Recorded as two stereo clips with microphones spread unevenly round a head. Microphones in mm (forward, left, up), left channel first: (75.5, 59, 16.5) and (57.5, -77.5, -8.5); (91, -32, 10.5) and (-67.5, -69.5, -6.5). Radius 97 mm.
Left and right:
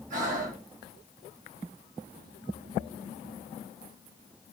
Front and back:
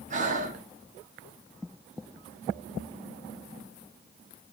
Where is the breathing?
130° right, 0.6 m.